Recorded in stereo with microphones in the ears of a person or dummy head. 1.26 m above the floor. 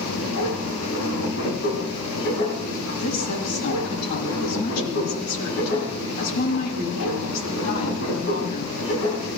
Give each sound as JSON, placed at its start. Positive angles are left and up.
{"t": 0.0, "sound": "a machine running", "side_deg": 70, "distance_m": 10.0}
{"t": 3.0, "sound": "a woman speaking", "side_deg": 55, "distance_m": 8.0}